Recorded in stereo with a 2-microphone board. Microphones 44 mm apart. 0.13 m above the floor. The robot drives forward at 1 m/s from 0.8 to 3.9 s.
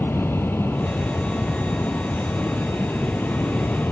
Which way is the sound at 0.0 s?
65° left (ahead or behind).